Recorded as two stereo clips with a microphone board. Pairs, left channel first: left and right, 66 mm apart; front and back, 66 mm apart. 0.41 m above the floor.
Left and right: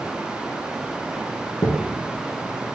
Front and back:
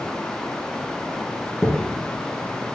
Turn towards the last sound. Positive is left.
turn(degrees=85)